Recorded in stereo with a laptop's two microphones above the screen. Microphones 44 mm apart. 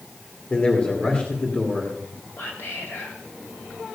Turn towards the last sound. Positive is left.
turn(degrees=55)  # may be behind; listen again after turning